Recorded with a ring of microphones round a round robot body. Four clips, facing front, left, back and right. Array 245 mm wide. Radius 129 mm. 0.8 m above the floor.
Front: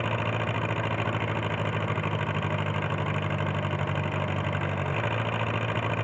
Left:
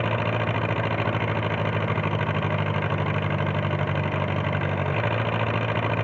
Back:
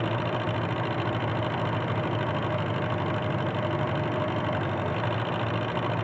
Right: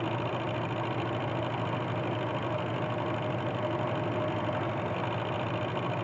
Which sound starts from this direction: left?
An engine running, at 0.0 s.